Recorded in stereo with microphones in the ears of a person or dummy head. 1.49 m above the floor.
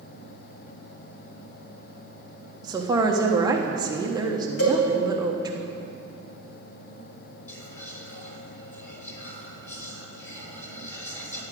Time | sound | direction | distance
2.6 | a woman speaking | 15° right (ahead or behind) | 1.3 m
4.6 | a cowbell | 50° left (ahead or behind) | 4 m
7.5 | whispering | 10° left (ahead or behind) | 4 m